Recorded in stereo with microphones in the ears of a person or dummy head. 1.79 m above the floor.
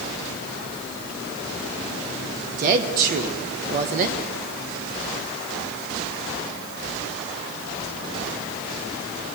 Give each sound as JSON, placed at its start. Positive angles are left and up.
{"t": 2.6, "sound": "a woman speaking", "side_deg": -45, "distance_m": 0.9}